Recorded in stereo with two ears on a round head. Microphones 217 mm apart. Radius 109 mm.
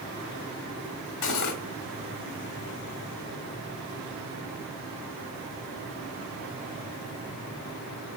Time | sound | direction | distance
1.2 | cutlery clinking | 85° left | 1.8 m